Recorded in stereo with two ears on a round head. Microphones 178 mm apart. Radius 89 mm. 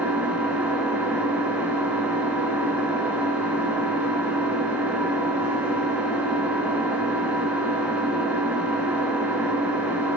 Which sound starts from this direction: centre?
An engine running, at 0.0 s.